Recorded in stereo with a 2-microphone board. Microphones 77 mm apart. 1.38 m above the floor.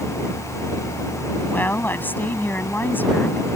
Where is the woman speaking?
25° left (ahead or behind).